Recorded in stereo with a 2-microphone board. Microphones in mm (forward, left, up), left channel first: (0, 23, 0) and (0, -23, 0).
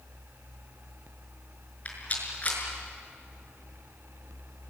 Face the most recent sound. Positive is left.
turn(degrees=30)  # may be behind; listen again after turning